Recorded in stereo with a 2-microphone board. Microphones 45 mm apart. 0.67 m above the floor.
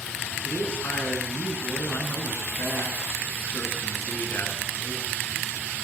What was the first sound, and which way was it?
A man speaking, 55° left (ahead or behind).